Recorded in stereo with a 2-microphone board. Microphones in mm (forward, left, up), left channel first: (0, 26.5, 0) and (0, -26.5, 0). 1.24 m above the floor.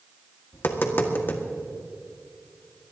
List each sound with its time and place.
0.5 s tapping: 45° left (ahead or behind), 1.6 m